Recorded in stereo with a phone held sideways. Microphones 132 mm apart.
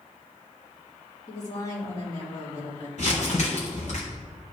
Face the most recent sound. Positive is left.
turn(degrees=60)  # may be behind; listen again after turning